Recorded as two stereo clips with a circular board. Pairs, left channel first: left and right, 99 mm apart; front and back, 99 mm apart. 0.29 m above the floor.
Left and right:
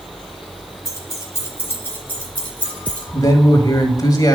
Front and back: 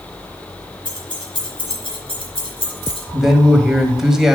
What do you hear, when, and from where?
0.8 s keys jangling: 30° left, 3 m; by 3.0 s 15° left, 4 m
3.1 s a man speaking: 95° left, 1.8 m